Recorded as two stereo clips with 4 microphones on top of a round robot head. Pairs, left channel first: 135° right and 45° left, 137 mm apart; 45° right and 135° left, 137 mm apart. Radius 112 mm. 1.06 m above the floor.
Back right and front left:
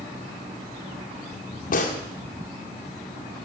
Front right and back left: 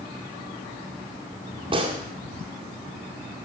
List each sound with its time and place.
1.7 s a gunshot: 165° right, 1.8 m